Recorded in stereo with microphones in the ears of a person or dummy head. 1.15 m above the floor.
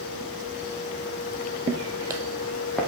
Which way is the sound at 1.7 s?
35° right (ahead or behind).